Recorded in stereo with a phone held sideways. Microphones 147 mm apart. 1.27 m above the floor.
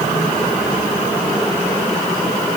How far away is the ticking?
No ticking in this recording.